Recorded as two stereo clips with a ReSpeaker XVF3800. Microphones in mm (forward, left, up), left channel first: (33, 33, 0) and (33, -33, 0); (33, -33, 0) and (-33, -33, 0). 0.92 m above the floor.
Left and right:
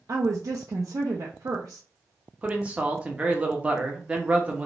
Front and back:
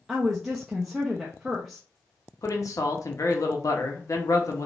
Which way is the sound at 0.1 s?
95° right.